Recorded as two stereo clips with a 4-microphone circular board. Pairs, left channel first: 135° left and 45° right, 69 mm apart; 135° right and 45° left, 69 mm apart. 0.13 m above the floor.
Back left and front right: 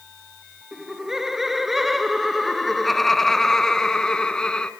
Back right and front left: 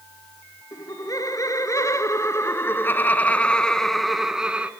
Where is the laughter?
130° right, 2.5 m; by 4.7 s 80° left, 1.3 m.